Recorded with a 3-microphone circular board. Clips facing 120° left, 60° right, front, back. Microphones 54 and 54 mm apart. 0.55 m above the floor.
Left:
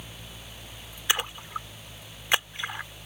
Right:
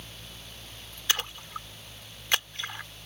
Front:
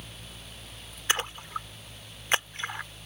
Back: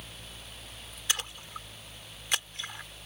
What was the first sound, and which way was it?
A splash, 50° left.